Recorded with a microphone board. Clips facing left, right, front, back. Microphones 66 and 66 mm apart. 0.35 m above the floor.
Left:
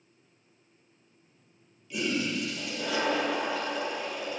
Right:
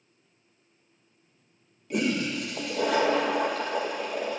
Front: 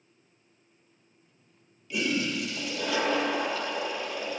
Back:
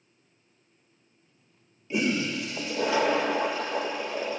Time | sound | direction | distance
1.9 | a toilet flushing | 120° right | 1.5 m